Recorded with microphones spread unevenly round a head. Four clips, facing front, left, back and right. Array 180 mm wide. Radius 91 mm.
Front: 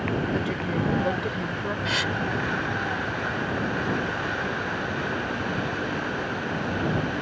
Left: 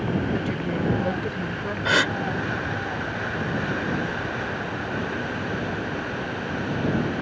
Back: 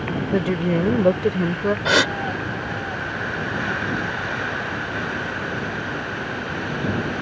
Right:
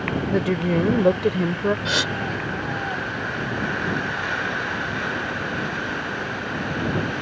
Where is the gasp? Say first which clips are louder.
Left 3 dB, back 10 dB; 175° left.